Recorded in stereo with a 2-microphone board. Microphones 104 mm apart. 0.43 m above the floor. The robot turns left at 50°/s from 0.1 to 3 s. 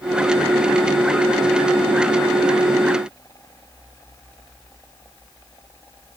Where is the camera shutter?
No camera shutter in this recording.